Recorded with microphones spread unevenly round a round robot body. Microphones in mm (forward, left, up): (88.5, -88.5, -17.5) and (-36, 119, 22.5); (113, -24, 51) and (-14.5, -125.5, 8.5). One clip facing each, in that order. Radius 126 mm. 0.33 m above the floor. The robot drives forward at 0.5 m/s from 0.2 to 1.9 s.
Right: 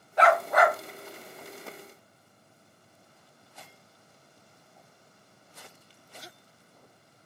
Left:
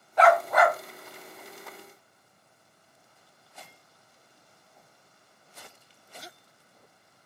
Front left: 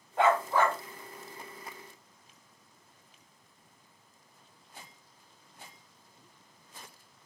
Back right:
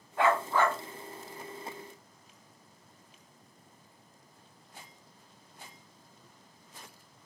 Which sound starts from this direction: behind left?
A dog barking, at 0.2 s.